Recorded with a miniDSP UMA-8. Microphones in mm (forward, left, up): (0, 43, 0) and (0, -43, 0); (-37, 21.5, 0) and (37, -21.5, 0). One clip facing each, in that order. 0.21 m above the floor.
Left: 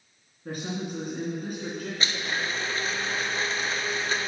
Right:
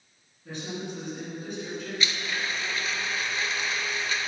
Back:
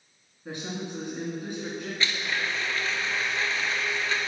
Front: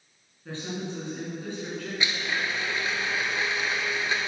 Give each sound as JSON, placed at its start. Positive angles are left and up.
{"t": 0.5, "sound": "a woman speaking", "azimuth_deg": 80, "distance_m": 2.5}
{"t": 2.0, "sound": "a blender", "azimuth_deg": 40, "distance_m": 0.7}